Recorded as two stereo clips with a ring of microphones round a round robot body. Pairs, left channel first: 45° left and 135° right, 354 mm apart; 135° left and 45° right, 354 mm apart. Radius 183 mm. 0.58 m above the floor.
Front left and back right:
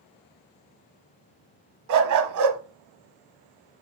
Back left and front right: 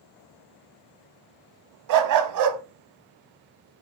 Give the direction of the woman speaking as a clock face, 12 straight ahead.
No woman speaking in this recording.